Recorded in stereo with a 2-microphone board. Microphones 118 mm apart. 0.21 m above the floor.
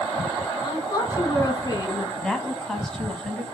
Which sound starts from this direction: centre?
A woman speaking, at 2.2 s.